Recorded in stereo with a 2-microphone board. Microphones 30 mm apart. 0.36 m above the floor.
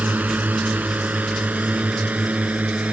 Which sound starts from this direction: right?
A drone, at 0.0 s.